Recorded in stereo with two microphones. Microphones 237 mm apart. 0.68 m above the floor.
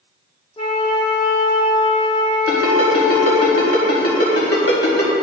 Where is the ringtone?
70° left (ahead or behind), 1.8 m.